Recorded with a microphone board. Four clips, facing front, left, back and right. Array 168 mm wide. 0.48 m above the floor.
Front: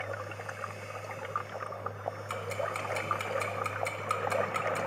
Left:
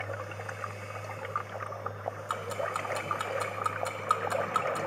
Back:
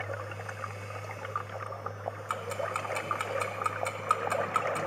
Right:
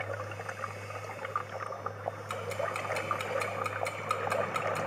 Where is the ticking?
135° left, 0.7 m.